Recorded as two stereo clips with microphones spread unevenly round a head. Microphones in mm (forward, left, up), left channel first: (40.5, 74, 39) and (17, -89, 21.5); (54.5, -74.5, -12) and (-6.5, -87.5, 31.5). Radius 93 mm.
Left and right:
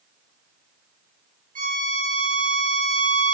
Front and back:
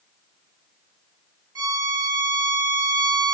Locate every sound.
1.6 s a violin: 145° right, 1.4 m